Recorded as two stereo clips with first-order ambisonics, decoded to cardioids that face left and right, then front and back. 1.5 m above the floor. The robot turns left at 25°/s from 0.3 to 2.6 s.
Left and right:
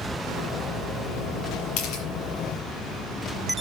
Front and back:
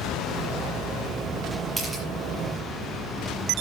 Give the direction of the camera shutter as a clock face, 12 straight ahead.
9 o'clock.